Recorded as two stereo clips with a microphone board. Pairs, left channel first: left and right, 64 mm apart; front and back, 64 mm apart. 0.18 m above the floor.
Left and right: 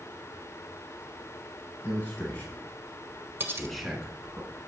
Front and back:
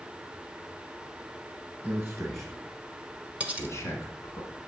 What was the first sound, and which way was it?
A man speaking, 110° left.